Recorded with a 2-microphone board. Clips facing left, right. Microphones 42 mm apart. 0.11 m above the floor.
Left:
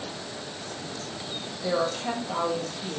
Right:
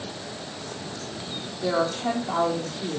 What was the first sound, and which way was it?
A woman speaking, 70° right (ahead or behind).